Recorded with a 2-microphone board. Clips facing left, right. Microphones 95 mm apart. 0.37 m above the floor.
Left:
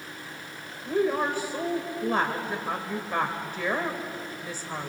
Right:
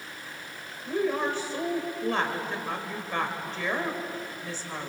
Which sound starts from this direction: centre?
A woman speaking, at 0.8 s.